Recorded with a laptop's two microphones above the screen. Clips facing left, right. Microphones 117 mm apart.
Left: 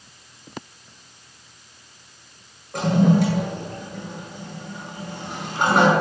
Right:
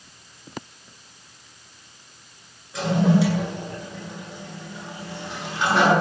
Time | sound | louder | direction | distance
2.7 | a toilet flushing | left 2 dB | 50° left (ahead or behind) | 9 m